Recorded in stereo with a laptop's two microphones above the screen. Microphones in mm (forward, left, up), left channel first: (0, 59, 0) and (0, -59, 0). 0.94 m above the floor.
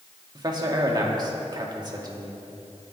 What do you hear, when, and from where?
0.3 s a man speaking: 35° right (ahead or behind), 2 m